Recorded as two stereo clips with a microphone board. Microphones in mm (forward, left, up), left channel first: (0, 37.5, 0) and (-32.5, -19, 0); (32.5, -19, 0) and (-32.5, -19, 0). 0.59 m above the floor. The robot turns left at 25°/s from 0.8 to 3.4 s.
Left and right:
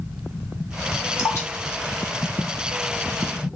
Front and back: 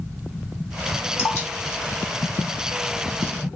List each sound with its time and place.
1.2 s dripping: 40° left, 1.4 m; by 3.2 s 10° right, 1.4 m